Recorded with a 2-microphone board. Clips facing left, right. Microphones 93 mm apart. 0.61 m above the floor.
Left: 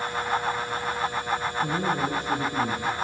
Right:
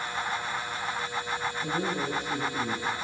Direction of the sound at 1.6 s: 60° left (ahead or behind).